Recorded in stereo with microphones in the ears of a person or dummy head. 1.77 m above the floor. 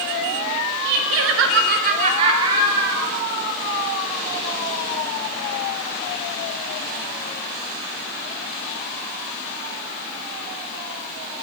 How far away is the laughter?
About 1.0 m.